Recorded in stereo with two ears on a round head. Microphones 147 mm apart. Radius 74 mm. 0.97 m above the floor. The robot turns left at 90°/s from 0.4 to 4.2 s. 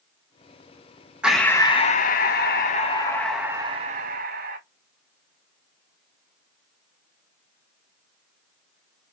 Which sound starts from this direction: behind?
Breathing, at 1.2 s.